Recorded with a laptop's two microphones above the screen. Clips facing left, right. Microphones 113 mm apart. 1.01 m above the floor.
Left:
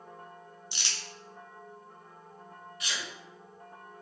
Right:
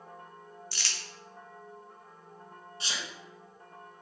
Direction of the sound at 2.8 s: 30° right (ahead or behind).